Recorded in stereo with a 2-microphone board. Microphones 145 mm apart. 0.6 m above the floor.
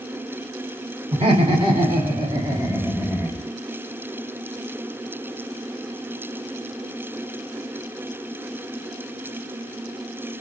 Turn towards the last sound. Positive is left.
turn(degrees=5)  # may be behind; listen again after turning